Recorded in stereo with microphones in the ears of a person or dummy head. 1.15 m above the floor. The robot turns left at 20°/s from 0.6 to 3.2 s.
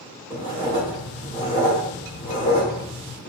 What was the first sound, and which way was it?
Writing, 15° right (ahead or behind).